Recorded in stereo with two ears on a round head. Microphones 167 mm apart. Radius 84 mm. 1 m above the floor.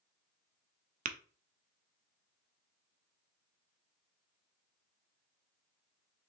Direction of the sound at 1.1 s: 45° right (ahead or behind).